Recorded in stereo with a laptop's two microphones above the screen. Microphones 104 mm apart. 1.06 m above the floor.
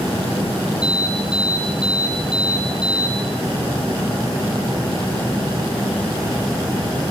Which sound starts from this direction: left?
An alarm, at 0.8 s.